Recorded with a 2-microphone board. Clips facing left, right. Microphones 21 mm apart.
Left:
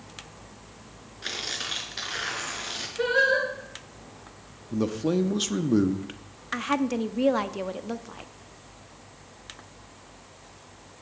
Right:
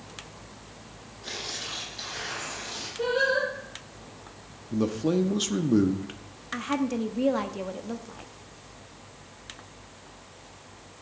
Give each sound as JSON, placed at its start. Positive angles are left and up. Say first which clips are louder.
{"t": 1.2, "sound": "tearing paper", "louder": "left 3 dB", "side_deg": 75, "distance_m": 3.0}
{"t": 3.0, "sound": "singing", "louder": "left 2 dB", "side_deg": 80, "distance_m": 6.0}
{"t": 4.7, "sound": "a man speaking", "louder": "even", "side_deg": 5, "distance_m": 0.7}
{"t": 6.5, "sound": "a woman speaking", "louder": "left 2 dB", "side_deg": 20, "distance_m": 0.6}